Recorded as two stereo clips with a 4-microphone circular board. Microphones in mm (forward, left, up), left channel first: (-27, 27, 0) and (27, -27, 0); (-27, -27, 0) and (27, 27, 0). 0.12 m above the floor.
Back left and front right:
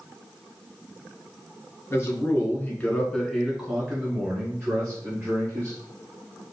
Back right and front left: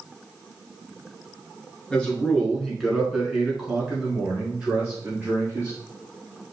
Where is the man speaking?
155° left, 1.7 m; by 5.8 s 20° right, 2.5 m.